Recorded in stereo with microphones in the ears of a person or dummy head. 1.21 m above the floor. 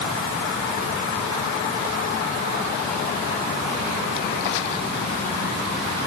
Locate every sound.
Only background noise.